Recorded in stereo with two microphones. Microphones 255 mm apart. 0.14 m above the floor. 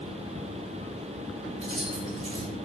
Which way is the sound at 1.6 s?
30° right (ahead or behind).